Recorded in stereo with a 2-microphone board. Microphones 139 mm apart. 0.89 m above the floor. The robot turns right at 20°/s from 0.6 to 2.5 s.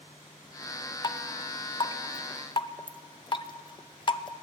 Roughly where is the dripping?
Left.